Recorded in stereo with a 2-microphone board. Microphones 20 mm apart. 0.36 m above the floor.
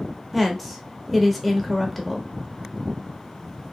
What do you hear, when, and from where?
0.3 s a woman speaking: centre (ahead or behind), 0.8 m